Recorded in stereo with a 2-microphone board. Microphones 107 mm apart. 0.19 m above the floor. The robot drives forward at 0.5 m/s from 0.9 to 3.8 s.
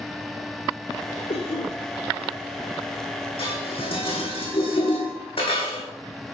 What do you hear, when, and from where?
1.3 s a cough: 70° left (ahead or behind), 4 m
3.4 s dishes clattering: 65° left (ahead or behind), 7 m